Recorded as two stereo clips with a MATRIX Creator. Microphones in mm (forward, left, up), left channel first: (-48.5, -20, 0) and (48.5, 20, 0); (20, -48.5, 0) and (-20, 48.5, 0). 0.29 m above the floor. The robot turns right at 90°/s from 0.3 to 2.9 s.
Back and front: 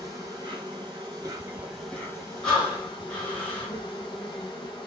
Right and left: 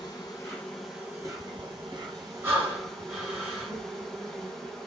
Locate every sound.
0.0 s an insect: 20° right, 0.9 m; by 4.9 s 150° right, 0.9 m
2.4 s breathing: 130° left, 1.4 m; by 3.7 s 170° left, 1.4 m